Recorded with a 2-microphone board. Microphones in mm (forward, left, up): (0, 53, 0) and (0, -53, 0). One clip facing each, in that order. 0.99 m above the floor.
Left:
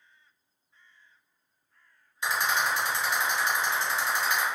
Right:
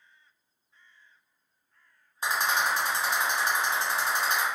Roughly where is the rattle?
Right.